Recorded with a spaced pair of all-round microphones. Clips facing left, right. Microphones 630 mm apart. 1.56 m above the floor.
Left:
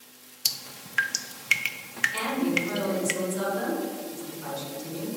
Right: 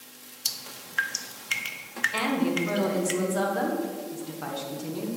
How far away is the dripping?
About 0.6 m.